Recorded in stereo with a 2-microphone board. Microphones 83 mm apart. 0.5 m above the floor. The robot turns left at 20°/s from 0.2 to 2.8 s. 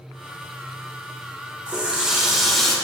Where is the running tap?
15° right (ahead or behind), 0.9 m; by 2.8 s 5° left (ahead or behind), 0.9 m.